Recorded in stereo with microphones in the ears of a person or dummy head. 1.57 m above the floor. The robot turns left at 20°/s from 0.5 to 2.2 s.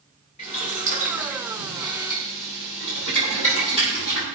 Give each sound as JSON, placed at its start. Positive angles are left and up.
{"t": 0.4, "sound": "boiling", "side_deg": 35, "distance_m": 5.0}